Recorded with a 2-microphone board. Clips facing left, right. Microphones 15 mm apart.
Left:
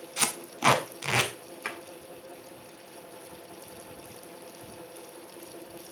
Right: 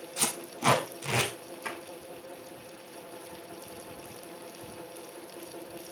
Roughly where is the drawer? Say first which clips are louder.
Left 2 dB; left.